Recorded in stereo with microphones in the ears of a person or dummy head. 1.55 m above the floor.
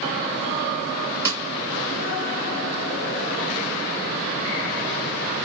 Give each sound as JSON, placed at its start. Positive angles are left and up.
{"t": 1.2, "sound": "a snare drum", "side_deg": -15, "distance_m": 2.5}